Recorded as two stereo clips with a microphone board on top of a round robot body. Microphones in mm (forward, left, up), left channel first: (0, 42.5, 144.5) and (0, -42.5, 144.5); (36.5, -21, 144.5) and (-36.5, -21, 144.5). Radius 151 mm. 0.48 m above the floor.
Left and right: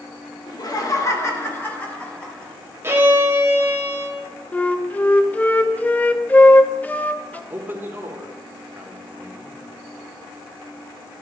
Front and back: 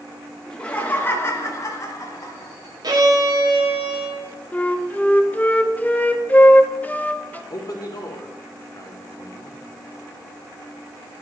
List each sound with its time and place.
0.5 s laughter: 75° left, 1.8 m; by 2.5 s 10° left, 2.5 m
2.8 s a violin: 150° right, 1.5 m
4.5 s a flute: 40° left, 0.8 m
7.5 s a man speaking: 25° right, 1.6 m